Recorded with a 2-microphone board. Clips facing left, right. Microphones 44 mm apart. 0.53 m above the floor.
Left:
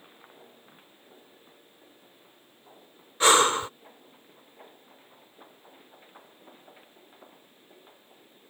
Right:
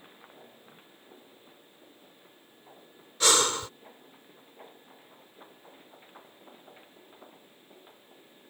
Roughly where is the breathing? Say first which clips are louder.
Left 6 dB; left.